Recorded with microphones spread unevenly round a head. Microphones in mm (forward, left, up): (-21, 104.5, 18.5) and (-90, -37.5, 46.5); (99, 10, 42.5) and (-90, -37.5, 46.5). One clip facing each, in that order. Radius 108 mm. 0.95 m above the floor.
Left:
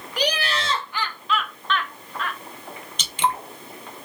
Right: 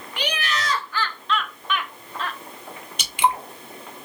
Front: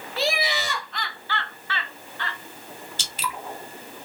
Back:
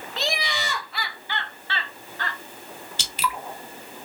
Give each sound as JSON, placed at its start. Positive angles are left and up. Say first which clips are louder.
{"t": 0.2, "sound": "laughter", "louder": "left 3 dB, front 4 dB", "azimuth_deg": 90, "distance_m": 1.1}
{"t": 3.0, "sound": "dripping", "louder": "right 2 dB, back 5 dB", "azimuth_deg": 160, "distance_m": 1.1}